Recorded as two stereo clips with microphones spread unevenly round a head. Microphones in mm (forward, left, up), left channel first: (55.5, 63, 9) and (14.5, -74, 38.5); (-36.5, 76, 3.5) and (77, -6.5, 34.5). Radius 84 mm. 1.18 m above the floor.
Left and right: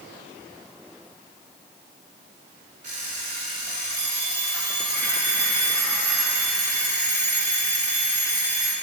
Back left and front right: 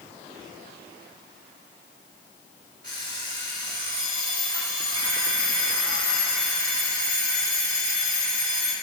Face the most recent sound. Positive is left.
turn(degrees=-80)